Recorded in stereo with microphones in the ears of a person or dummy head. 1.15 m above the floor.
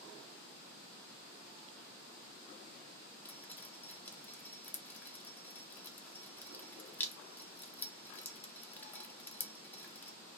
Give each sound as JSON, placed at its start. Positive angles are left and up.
{"t": 3.2, "sound": "dripping", "side_deg": 10, "distance_m": 0.6}